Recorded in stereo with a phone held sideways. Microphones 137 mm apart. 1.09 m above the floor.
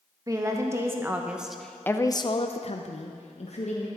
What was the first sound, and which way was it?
A woman speaking, 25° right (ahead or behind).